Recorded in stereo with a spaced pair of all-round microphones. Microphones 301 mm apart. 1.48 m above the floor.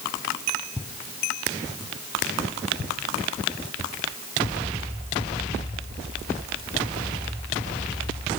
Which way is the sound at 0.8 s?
10° right (ahead or behind).